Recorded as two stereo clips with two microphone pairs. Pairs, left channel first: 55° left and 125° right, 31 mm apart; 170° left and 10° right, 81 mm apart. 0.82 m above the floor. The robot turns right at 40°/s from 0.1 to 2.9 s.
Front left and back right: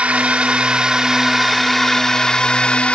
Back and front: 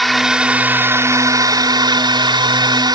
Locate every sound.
0.0 s a drone: 100° right; by 3.0 s 10° left